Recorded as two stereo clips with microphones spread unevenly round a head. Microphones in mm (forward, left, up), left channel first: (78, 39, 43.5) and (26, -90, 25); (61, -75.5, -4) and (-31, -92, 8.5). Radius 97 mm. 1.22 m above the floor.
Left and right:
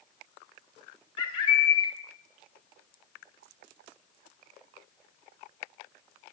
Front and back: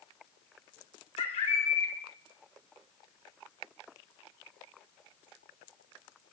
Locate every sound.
1.2 s a bird: 15° left, 3.5 m